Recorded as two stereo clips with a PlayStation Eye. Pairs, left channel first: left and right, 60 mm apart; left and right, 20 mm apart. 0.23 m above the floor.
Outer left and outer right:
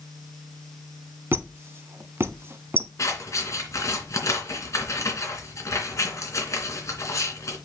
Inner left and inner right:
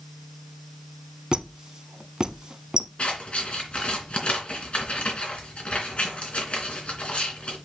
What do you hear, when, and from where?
1.3 s a squeak: 45° right (ahead or behind), 0.7 m
3.0 s scissors: 60° left (ahead or behind), 2.5 m